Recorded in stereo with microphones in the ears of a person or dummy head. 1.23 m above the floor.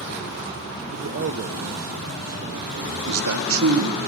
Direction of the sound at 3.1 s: 80° right.